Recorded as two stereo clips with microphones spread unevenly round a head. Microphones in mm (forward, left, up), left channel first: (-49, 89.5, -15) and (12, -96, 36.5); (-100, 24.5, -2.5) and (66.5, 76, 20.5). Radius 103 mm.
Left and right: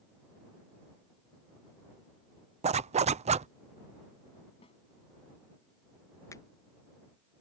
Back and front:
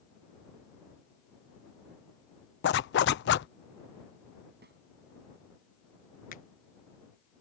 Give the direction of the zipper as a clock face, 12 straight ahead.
4 o'clock.